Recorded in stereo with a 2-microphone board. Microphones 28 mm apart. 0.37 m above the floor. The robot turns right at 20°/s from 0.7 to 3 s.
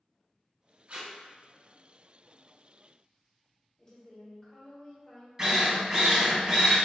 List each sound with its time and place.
0.9 s tape being pulled: 65° right (ahead or behind), 1.5 m
3.8 s a woman speaking: 15° left (ahead or behind), 1.3 m
5.4 s a drill: 20° right (ahead or behind), 1.2 m